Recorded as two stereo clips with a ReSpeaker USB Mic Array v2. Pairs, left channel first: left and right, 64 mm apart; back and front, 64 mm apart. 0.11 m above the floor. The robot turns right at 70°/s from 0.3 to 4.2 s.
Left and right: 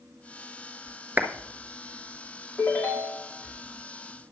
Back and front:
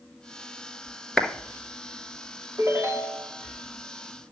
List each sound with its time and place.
1.2 s a clap: 115° right, 1.2 m; by 1.3 s 105° right, 1.2 m
2.6 s a ringtone: 15° left, 2.5 m; by 3.3 s 70° left, 2.5 m